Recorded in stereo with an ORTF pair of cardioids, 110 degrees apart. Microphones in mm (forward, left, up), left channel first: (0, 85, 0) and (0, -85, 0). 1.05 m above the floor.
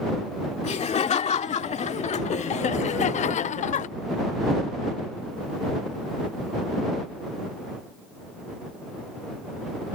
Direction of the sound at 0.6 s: 40° left.